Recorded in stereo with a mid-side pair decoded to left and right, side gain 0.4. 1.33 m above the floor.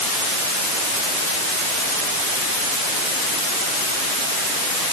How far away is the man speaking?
I don't hear a man speaking.